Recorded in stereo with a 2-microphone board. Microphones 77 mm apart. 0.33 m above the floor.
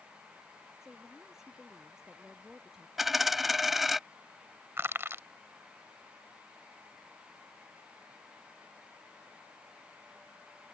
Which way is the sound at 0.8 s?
5° right (ahead or behind).